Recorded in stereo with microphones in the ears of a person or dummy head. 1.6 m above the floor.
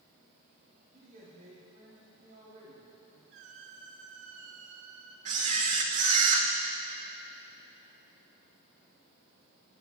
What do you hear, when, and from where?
0.9 s a man speaking: 50° right (ahead or behind), 4 m
3.3 s a squeak: 70° right (ahead or behind), 1.9 m
5.2 s a camera shutter: 45° right (ahead or behind), 1.2 m